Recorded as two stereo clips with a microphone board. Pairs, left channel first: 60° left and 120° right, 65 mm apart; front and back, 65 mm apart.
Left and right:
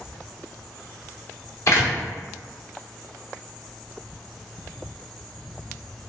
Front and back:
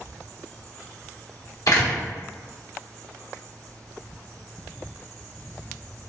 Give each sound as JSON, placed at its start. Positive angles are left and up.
{"t": 1.7, "sound": "a door slam", "azimuth_deg": 25, "distance_m": 0.8}